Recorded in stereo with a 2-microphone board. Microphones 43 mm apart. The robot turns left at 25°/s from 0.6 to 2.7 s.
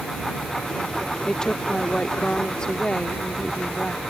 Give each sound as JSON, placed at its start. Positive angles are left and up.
{"t": 1.2, "sound": "a woman speaking", "side_deg": 15}